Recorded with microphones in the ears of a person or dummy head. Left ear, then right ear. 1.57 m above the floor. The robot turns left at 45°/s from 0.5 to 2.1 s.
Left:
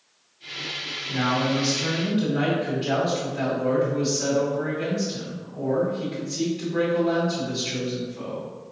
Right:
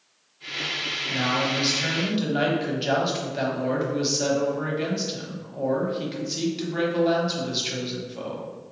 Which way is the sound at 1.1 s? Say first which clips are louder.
Left 2 dB; 5° right.